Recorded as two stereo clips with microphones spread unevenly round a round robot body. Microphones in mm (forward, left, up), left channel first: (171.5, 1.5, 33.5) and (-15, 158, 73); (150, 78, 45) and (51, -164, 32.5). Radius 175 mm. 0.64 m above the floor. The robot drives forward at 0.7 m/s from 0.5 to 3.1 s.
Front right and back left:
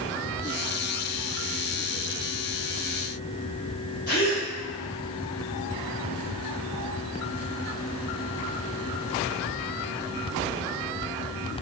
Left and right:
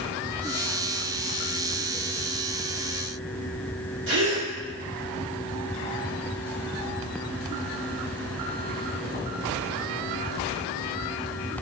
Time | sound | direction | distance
4.1 | a gasp | 85° right | 2 m